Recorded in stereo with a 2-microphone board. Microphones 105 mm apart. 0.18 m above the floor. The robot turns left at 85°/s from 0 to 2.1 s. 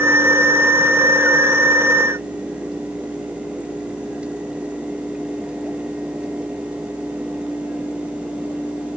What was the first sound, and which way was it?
Only background noise.